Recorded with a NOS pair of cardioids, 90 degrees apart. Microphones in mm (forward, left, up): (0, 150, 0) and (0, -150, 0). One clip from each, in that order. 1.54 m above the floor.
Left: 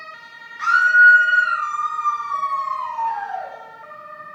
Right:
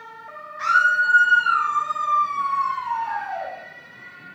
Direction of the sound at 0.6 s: 10° right.